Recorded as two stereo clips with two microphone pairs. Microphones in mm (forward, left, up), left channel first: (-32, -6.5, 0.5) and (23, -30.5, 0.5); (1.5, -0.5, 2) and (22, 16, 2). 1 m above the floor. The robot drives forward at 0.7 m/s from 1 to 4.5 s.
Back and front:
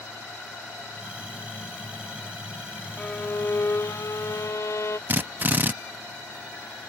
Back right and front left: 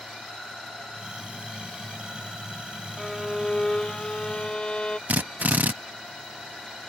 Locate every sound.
3.0 s a violin: 120° left; by 5.0 s 170° left
5.1 s a drill: 30° left